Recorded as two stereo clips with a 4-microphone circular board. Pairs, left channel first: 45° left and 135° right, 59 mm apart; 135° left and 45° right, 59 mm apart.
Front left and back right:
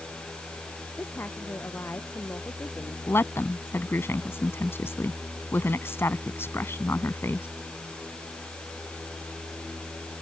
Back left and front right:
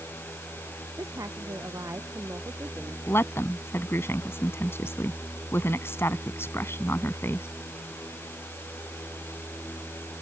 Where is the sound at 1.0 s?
15° right; by 3.0 s 5° right.